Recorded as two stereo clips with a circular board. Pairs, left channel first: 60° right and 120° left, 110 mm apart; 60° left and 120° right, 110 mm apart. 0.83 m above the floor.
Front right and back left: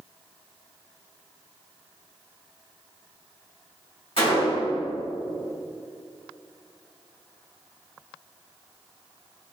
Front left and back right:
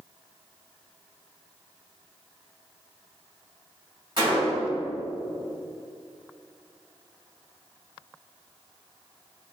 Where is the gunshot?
75° right, 2.0 m.